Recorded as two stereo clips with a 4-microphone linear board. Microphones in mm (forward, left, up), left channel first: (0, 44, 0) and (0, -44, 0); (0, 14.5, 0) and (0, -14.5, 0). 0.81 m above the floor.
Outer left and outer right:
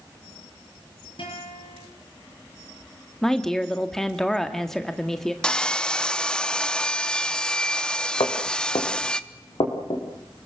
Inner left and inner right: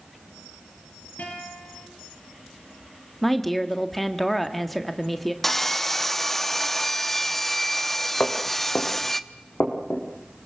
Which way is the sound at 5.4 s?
10° left (ahead or behind).